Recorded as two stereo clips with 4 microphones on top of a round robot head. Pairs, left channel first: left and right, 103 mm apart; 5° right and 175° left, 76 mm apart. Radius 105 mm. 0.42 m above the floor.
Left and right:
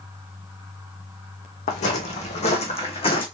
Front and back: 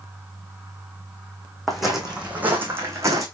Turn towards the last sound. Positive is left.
turn(degrees=125)